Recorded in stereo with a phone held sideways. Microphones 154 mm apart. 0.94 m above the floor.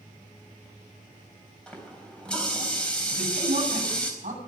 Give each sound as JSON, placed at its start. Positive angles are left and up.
{"t": 1.7, "sound": "a running tap", "side_deg": 5, "distance_m": 4.0}
{"t": 3.1, "sound": "a man speaking", "side_deg": -60, "distance_m": 8.0}